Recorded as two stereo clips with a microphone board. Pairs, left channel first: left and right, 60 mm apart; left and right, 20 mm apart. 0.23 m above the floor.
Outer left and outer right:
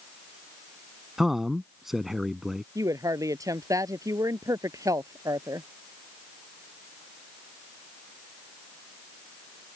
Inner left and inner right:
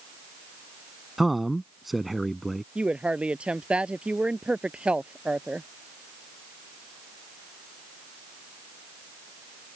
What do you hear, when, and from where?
1.2 s a man speaking: 5° right (ahead or behind)
2.8 s a woman speaking: 65° right (ahead or behind)